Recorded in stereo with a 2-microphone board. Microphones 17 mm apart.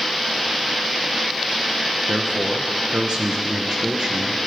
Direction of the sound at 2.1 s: 60° right (ahead or behind).